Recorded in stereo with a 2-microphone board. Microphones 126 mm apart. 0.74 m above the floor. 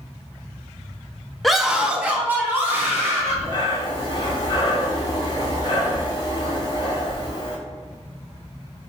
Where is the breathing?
35° left (ahead or behind), 1.1 m.